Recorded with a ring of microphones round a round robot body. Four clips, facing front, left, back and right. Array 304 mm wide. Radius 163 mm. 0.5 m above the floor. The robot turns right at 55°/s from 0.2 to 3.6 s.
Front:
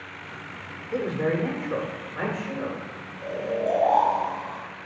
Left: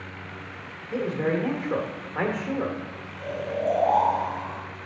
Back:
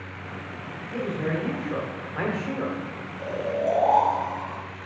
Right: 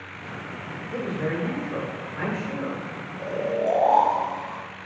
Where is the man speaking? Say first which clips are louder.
Left 3 dB, front 3 dB; 40° left, 1.8 m; by 2.8 s 145° left, 1.8 m.